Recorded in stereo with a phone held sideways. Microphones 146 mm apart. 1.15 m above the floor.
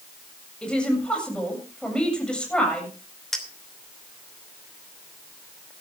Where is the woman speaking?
5° left (ahead or behind), 7.5 m.